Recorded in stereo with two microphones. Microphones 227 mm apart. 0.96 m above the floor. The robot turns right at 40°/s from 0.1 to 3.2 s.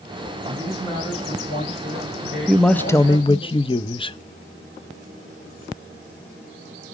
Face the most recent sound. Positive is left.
turn(degrees=25)  # may be behind; listen again after turning